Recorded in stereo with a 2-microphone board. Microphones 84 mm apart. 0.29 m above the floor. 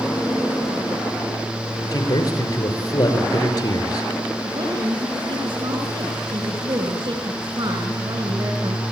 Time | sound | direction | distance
1.9 | a man speaking | 45° left (ahead or behind) | 4.5 m
4.4 | a woman speaking | 70° right (ahead or behind) | 4 m